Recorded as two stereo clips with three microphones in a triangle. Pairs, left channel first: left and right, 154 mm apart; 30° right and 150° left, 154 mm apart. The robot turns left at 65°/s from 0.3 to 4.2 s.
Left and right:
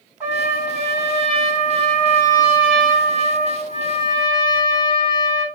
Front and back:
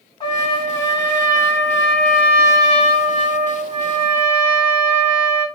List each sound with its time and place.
0.2 s a trumpet: 15° right, 1.9 m; by 5.5 s 90° left, 1.9 m